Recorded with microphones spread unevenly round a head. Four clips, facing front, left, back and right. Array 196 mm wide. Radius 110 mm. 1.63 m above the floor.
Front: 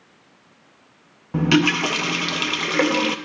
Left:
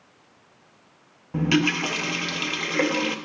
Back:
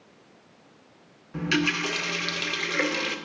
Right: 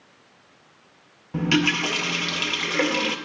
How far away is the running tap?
About 0.7 m.